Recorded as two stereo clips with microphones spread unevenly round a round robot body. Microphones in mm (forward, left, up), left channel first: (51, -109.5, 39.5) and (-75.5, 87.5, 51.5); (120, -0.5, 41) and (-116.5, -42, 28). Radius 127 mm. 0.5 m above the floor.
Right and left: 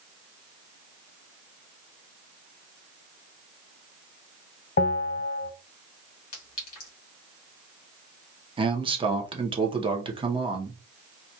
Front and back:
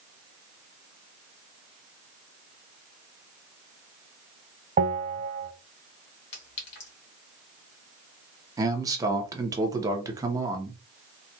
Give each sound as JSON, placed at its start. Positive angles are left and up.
{"t": 4.8, "sound": "a bell", "azimuth_deg": -110, "distance_m": 0.9}
{"t": 6.3, "sound": "a clink", "azimuth_deg": -35, "distance_m": 2.5}
{"t": 8.6, "sound": "a man speaking", "azimuth_deg": 155, "distance_m": 0.9}